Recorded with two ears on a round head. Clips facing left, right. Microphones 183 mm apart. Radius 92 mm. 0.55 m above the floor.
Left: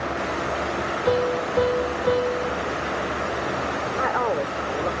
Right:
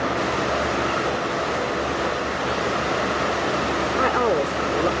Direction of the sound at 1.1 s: 75° left (ahead or behind).